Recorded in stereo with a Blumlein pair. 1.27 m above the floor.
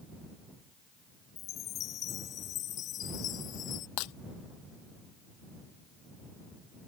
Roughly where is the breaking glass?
Ahead left.